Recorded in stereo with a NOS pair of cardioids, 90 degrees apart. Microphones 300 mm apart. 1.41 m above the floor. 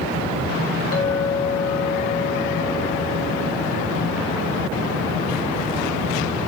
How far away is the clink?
About 6.5 m.